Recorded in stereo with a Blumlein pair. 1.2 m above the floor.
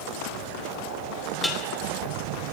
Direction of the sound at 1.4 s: 5° left.